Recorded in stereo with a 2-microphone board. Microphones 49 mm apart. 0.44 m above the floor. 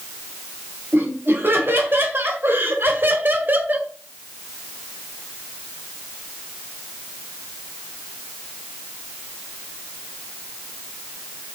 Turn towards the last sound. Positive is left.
turn(degrees=-35)  # may be behind; listen again after turning